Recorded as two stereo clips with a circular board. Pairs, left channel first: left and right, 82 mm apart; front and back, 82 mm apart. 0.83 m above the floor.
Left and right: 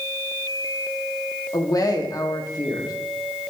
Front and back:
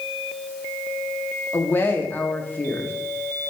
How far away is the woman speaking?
About 1.8 m.